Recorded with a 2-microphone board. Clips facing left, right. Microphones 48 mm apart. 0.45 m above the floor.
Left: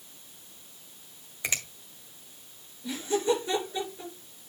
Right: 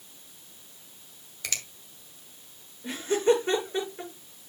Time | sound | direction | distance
1.4 | a finger snap | 25° left (ahead or behind) | 1.8 m
2.8 | laughter | 45° right (ahead or behind) | 5.5 m